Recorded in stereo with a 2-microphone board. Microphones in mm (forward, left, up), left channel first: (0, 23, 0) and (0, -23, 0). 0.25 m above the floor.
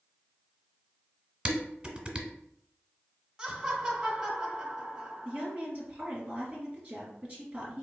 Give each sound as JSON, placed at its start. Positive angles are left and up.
{"t": 1.4, "sound": "dishes clattering", "side_deg": -25, "distance_m": 0.9}
{"t": 3.4, "sound": "laughter", "side_deg": -15, "distance_m": 1.0}
{"t": 5.2, "sound": "a woman speaking", "side_deg": -30, "distance_m": 1.9}